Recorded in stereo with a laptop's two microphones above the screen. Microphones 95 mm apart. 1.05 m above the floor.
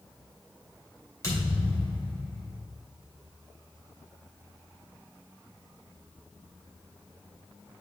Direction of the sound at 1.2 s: 30° left (ahead or behind).